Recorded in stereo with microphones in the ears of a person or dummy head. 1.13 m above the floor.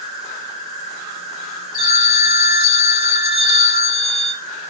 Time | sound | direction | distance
0.0 | an insect | 40° right (ahead or behind) | 1.6 m
1.7 | a phone ringing | 25° right (ahead or behind) | 1.7 m